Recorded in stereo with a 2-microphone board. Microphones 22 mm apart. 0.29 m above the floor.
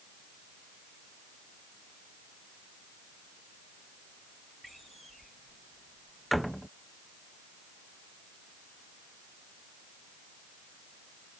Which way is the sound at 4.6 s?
5° left (ahead or behind).